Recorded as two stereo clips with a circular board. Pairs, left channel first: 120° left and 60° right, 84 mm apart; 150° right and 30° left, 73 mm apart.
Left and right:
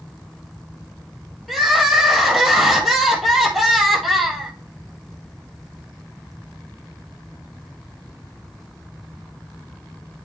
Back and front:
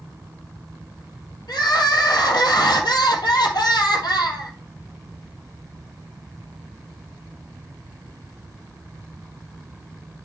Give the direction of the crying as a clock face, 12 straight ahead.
5 o'clock.